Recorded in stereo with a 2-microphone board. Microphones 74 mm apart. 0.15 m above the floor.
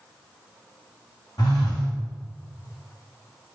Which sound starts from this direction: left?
A phone buzzing, at 1.4 s.